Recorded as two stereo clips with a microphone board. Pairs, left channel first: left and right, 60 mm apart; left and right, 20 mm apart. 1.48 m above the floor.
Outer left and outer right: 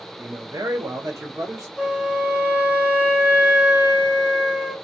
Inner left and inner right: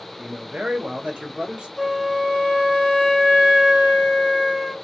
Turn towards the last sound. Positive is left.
turn(degrees=-25)  # may be behind; listen again after turning